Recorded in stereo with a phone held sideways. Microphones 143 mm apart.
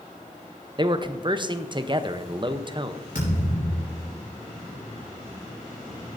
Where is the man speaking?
35° right (ahead or behind), 0.7 m.